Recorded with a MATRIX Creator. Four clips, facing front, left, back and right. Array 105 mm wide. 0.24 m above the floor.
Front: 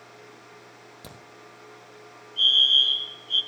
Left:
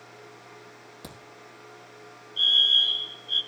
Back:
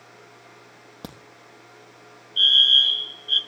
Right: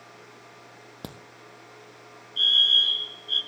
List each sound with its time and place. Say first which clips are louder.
1.0 s a crack: right 5 dB, back 7 dB; 135° right, 3.5 m
2.4 s a fire alarm: right 1 dB, back 3 dB; 165° right, 6 m